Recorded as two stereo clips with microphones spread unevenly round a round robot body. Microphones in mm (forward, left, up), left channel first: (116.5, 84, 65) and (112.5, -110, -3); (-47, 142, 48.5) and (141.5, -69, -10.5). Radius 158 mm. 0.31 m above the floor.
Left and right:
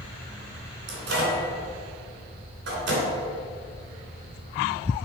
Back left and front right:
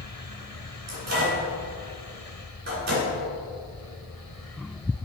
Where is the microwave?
105° right, 2.5 m.